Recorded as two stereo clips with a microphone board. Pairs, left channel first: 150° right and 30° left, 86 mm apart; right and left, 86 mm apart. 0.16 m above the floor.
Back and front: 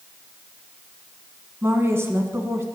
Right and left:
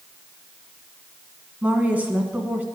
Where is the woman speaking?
35° left, 1.2 m.